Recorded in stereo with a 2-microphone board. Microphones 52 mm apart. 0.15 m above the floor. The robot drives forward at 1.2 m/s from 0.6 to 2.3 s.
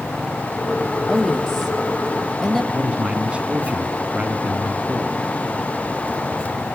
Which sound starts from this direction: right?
A man speaking, at 2.7 s.